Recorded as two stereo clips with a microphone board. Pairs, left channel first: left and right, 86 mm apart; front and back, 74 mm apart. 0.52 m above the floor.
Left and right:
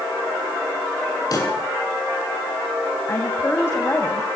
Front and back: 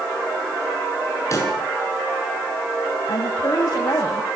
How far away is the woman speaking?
About 2.5 m.